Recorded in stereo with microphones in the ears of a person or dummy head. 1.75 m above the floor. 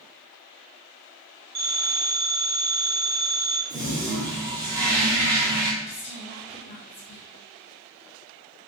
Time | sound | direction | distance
1.6 | a phone ringing | 30° right (ahead or behind) | 0.8 m
3.7 | a toilet flushing | 20° right (ahead or behind) | 0.8 m
5.8 | a woman speaking | 30° left (ahead or behind) | 0.5 m